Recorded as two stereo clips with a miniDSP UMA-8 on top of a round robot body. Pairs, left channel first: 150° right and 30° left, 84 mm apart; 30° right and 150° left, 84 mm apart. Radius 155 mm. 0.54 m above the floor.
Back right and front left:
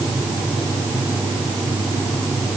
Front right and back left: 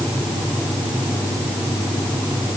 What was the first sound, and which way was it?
Only background noise.